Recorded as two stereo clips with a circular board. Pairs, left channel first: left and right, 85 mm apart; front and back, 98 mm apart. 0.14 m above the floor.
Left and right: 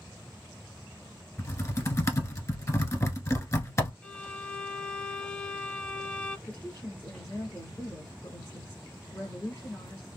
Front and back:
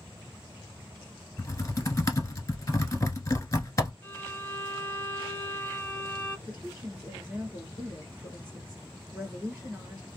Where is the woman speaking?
125° left, 2.0 m.